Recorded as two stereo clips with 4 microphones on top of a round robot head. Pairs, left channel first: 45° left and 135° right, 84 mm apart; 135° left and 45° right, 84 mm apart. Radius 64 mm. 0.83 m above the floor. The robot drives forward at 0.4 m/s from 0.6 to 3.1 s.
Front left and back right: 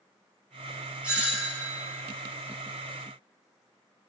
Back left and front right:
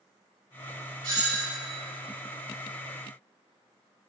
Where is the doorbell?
60° right, 4 m.